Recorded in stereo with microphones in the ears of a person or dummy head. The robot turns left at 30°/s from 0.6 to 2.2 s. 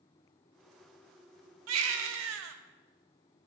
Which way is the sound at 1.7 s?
75° right (ahead or behind).